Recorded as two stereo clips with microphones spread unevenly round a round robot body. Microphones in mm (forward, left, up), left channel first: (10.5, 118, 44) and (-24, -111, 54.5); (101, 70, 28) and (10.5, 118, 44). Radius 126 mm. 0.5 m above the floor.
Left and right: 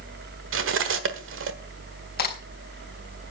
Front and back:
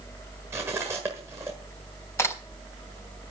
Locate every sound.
0.5 s cutlery clinking: 130° right, 1.2 m
2.2 s a crack: 35° left, 3.5 m